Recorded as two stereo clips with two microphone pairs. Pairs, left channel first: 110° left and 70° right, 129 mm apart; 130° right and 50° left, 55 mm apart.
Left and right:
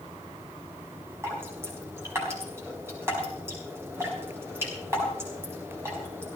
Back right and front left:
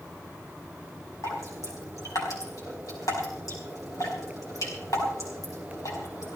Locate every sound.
1.2 s dripping: 140° right, 5 m